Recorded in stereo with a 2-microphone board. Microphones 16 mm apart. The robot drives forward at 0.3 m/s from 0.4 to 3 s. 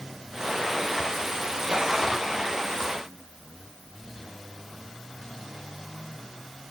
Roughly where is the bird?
I don't hear a bird.